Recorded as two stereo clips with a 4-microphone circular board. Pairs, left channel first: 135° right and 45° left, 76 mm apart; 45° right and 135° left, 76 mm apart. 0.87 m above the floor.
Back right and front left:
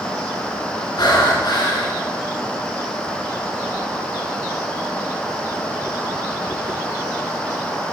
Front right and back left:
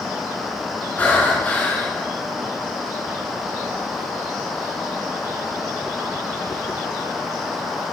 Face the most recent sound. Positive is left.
turn(degrees=-110)